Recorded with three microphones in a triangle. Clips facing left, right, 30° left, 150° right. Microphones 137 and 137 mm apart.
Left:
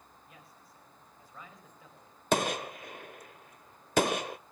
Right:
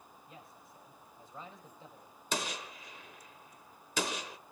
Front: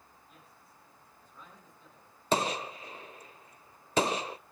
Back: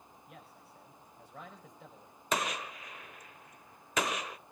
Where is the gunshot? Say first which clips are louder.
Left 9 dB, front 5 dB; 80° left, 0.6 m.